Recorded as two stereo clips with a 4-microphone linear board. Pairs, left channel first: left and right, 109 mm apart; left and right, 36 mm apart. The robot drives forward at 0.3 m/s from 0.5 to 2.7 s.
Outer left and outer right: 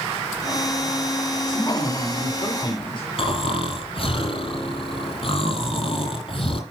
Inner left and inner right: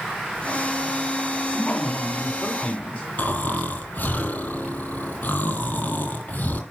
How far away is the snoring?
About 2.5 m.